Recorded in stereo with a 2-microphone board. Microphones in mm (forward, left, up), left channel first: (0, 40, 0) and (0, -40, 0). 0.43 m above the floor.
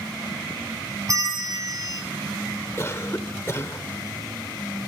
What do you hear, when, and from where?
1.1 s a bell: 45° right (ahead or behind), 2 m
2.8 s a cough: 35° left (ahead or behind), 1.1 m